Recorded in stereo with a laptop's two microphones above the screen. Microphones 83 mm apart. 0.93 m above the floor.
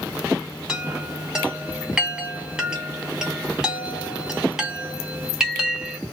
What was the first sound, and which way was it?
A chime, 10° right (ahead or behind).